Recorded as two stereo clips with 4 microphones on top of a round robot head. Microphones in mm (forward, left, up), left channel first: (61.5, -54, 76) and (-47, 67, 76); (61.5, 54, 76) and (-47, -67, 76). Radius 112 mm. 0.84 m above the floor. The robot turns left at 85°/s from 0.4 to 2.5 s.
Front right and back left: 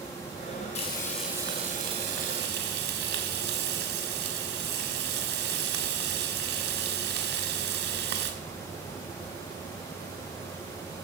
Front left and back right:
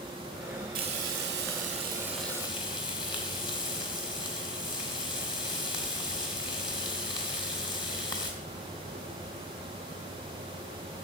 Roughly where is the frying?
Right.